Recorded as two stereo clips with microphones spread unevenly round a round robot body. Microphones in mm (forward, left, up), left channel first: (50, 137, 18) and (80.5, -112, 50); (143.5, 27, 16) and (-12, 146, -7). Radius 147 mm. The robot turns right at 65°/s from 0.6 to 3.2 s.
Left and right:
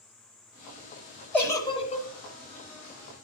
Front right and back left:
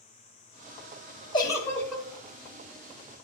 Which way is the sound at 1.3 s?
25° left.